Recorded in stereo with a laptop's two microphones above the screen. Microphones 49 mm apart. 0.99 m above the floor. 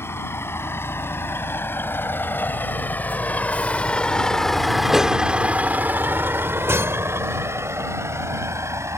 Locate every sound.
0.0 s a vehicle: 60° left (ahead or behind); by 9.0 s 80° right